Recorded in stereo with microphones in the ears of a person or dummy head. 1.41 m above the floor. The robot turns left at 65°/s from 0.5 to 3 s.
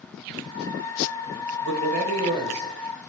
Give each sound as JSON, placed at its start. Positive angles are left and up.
{"t": 1.6, "sound": "a man speaking", "azimuth_deg": -105, "distance_m": 1.3}